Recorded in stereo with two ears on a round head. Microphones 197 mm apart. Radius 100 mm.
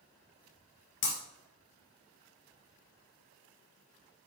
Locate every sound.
1.0 s breaking glass: 60° left (ahead or behind), 3 m